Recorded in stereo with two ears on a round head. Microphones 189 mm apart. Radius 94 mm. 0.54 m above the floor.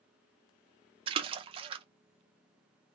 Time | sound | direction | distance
1.1 | a splash | 25° right (ahead or behind) | 0.6 m